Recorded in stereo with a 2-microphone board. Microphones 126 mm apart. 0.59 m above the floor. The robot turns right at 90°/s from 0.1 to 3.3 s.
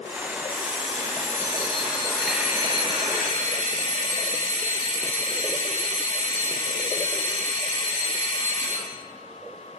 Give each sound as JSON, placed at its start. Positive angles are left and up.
{"t": 0.5, "sound": "an alarm clock", "azimuth_deg": 15, "distance_m": 3.5}